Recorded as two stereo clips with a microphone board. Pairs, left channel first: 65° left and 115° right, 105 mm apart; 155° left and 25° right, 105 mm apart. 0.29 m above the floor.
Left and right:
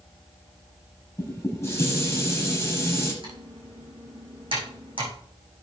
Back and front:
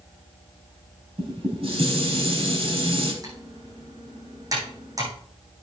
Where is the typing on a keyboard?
75° right, 6 m.